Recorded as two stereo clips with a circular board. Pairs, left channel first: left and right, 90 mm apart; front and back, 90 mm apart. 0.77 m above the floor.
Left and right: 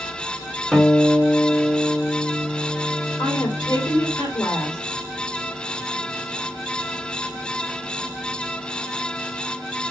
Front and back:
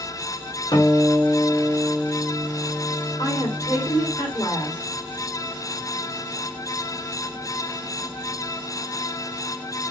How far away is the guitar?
About 1.4 m.